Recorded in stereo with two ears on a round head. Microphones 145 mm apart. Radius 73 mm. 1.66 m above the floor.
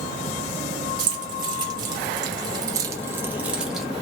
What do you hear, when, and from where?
1.0 s keys jangling: 25° right (ahead or behind), 1.2 m; by 3.9 s centre (ahead or behind), 0.6 m